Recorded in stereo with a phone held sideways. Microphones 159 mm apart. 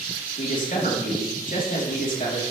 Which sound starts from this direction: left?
A man speaking, at 0.4 s.